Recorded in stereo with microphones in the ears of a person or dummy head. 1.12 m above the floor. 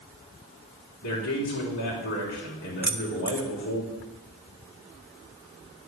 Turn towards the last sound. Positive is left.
turn(degrees=-10)  # may be behind; listen again after turning